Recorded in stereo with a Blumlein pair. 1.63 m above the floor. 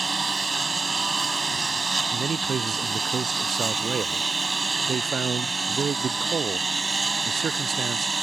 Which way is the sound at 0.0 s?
10° right.